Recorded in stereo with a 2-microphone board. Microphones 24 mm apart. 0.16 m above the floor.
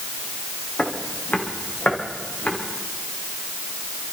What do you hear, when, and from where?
0.8 s footsteps: 80° left, 3 m; by 2.5 s 70° left (ahead or behind), 5 m